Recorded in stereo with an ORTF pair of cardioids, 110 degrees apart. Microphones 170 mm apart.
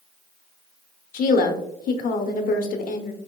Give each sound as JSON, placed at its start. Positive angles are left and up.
{"t": 1.1, "sound": "a woman speaking", "azimuth_deg": 55, "distance_m": 0.8}